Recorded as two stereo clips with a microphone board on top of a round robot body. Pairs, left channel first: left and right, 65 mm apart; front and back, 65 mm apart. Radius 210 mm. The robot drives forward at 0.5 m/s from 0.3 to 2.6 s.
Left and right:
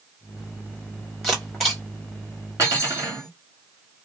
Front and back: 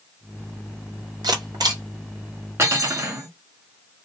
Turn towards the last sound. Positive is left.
turn(degrees=-135)